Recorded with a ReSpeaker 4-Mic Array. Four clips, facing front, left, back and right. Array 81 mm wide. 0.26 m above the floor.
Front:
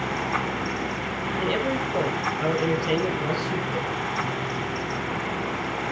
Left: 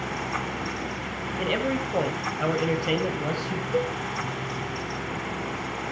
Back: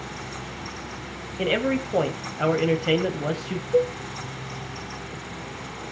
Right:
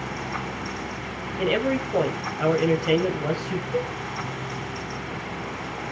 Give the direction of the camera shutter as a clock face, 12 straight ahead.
I don't hear a camera shutter.